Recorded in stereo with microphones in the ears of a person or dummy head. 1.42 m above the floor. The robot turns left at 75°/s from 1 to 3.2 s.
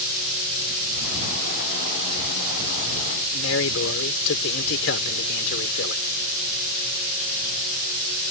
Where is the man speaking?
75° left (ahead or behind).